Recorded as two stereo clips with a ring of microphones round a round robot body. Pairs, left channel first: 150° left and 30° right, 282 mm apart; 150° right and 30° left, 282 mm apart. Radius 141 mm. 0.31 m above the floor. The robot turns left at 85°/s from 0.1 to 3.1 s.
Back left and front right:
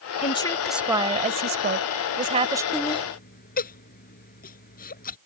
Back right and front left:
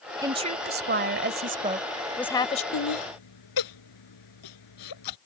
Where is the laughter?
120° right; by 5.2 s 150° right.